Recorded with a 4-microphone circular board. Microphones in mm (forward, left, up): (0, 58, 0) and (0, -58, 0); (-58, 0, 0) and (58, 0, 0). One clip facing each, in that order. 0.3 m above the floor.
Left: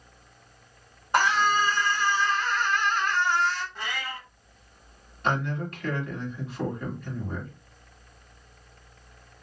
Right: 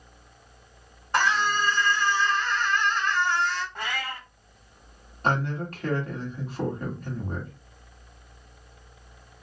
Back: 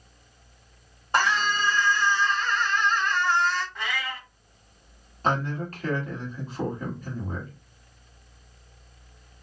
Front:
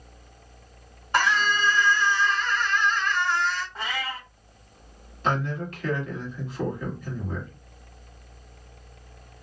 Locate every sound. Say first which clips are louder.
1.1 s a scream: left 2 dB, front 1 dB; 160° left, 1.5 m
3.8 s a cat meowing: right 2 dB, front 1 dB; 55° right, 0.8 m
5.2 s a man speaking: right 1 dB, even; 135° right, 1.6 m